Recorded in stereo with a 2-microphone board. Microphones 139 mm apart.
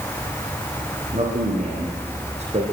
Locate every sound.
1.1 s a man speaking: 55° right (ahead or behind), 7.5 m; by 2.6 s 50° right (ahead or behind), 7 m